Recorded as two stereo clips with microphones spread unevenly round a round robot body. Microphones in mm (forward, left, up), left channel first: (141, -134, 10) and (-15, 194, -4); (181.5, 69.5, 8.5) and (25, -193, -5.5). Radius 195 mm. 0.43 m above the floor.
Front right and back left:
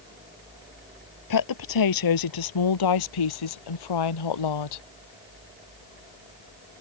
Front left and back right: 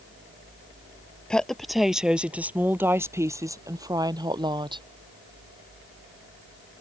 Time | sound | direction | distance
1.3 | a woman speaking | 30° right | ?